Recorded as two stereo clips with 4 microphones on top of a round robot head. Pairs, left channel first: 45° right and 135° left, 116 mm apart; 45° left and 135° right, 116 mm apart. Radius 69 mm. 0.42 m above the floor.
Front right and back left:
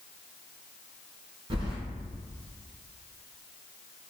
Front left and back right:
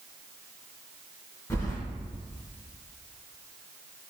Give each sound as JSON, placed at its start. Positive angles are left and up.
{"t": 1.5, "sound": "keys jangling", "azimuth_deg": 105, "distance_m": 0.8}